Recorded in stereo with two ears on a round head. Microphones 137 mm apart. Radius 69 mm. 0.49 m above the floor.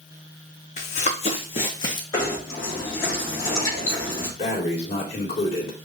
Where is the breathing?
45° left (ahead or behind), 2.5 m.